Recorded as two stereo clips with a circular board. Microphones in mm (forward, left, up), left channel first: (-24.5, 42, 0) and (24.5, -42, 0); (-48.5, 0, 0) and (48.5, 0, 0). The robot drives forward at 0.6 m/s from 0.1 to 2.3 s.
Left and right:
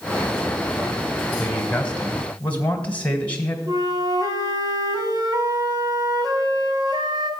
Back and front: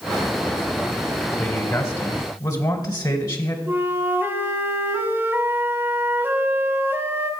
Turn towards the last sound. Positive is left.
turn(degrees=-60)